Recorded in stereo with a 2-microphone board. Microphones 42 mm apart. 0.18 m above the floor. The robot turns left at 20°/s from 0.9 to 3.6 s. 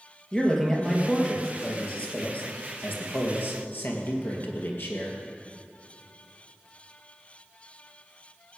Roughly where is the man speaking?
Behind.